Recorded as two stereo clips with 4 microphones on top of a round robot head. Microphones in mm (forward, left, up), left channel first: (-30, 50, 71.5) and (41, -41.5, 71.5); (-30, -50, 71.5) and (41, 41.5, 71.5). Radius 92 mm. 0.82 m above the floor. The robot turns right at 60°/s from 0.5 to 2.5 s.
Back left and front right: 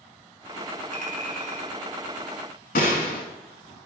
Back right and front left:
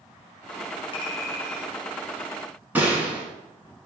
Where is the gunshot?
130° left, 1.2 m.